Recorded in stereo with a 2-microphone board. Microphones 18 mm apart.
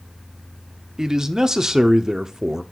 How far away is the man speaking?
About 0.6 m.